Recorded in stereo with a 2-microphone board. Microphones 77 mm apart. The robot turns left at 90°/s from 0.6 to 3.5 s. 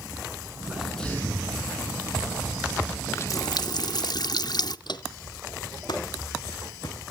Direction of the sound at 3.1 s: 150° left.